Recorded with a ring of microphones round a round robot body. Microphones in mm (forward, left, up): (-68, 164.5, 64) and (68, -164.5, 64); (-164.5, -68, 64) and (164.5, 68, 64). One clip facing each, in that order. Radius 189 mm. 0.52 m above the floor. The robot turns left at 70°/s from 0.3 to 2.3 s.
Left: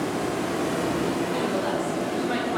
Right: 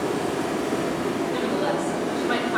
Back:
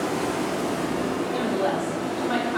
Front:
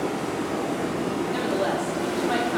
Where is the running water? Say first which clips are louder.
Right 2 dB, back 1 dB; 170° left, 0.7 m; by 2.6 s 30° left, 0.7 m.